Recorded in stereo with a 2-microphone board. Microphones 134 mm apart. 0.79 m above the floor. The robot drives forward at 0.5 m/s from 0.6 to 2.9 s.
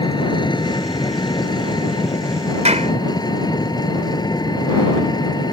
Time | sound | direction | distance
0.0 | an engine running | 35° left (ahead or behind) | ?
2.6 | a clap | 55° right (ahead or behind) | ?